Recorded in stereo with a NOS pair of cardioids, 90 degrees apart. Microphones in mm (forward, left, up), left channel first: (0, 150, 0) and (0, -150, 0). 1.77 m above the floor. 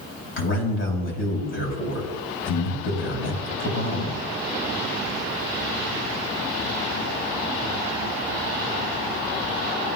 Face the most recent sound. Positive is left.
turn(degrees=40)